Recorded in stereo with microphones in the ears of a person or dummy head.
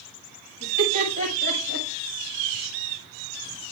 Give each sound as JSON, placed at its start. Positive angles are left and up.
{"t": 0.6, "sound": "laughter", "side_deg": 85, "distance_m": 8.0}